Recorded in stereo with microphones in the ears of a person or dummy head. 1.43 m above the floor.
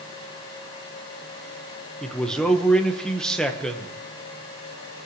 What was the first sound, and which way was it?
A man speaking, centre (ahead or behind).